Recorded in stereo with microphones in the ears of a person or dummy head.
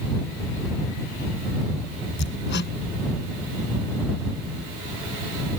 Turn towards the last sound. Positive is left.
turn(degrees=55)  # may be behind; listen again after turning